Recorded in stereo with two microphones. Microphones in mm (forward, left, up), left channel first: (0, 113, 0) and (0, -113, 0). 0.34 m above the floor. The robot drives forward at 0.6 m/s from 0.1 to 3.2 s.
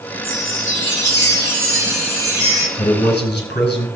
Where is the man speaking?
50° left (ahead or behind), 4.5 m; by 3.9 s 45° left (ahead or behind), 5 m.